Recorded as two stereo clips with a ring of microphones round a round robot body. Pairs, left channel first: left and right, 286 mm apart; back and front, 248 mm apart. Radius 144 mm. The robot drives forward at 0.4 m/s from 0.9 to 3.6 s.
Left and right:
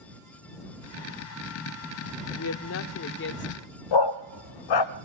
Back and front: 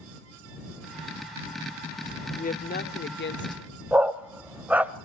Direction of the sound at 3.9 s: 85° left.